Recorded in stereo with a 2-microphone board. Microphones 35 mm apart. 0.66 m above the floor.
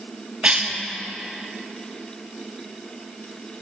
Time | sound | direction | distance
0.4 | a cough | 30° right (ahead or behind) | 0.9 m